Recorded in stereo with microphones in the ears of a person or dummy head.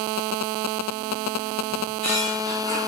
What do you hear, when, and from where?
1.7 s a squeak: 30° left (ahead or behind), 2 m